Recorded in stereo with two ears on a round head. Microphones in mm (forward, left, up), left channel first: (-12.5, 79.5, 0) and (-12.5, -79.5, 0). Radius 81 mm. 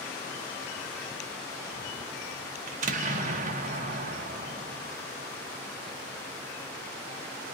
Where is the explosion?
45° right (ahead or behind), 0.9 m.